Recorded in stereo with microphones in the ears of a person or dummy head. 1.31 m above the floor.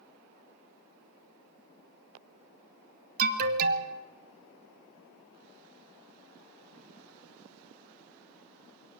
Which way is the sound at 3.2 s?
50° right (ahead or behind).